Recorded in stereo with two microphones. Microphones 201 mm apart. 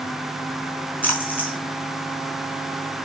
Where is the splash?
10° left (ahead or behind), 4.5 m.